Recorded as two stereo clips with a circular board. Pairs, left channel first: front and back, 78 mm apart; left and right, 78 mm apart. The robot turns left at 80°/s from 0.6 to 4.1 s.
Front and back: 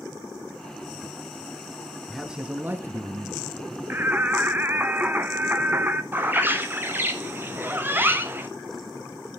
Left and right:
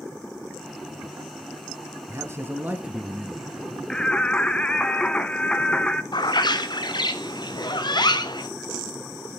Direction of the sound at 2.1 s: 90° right.